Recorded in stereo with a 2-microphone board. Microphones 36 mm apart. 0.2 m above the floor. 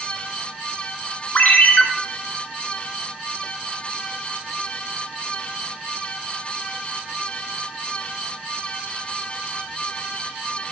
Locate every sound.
1.4 s a ringtone: 55° left (ahead or behind), 1.3 m